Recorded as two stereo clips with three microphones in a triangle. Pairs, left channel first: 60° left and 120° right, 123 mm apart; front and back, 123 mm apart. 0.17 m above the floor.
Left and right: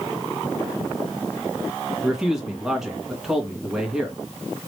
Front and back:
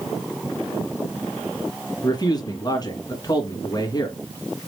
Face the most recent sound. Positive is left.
turn(degrees=-35)